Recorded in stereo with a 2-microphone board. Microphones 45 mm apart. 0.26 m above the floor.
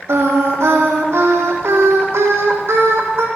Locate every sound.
0.1 s singing: 80° right, 2 m